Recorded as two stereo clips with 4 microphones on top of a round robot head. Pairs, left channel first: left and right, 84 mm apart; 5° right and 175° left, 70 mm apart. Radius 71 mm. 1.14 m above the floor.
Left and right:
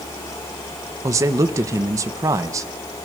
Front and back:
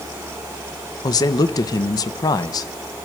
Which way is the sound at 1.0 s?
35° right.